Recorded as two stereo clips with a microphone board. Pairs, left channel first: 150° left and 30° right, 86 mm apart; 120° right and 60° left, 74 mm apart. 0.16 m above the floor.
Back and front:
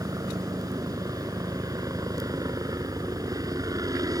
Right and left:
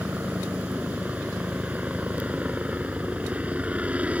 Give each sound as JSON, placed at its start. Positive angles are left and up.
{"t": 0.0, "sound": "a helicopter", "azimuth_deg": -5}